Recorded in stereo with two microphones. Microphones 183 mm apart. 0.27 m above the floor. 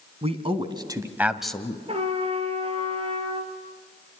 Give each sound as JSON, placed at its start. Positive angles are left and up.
{"t": 0.2, "sound": "a man speaking", "side_deg": -35, "distance_m": 2.5}
{"t": 1.9, "sound": "a trumpet", "side_deg": -35, "distance_m": 3.0}